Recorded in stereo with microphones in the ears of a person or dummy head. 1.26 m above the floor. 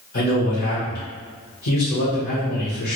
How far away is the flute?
I don't hear a flute.